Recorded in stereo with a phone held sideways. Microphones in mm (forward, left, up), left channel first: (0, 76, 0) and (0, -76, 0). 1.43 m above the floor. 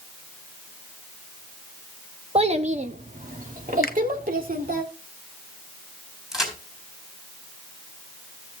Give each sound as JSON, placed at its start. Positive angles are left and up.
{"t": 2.4, "sound": "a child speaking", "side_deg": -40, "distance_m": 1.0}
{"t": 3.8, "sound": "a finger snap", "side_deg": 75, "distance_m": 0.8}
{"t": 6.3, "sound": "a crack", "side_deg": -5, "distance_m": 4.0}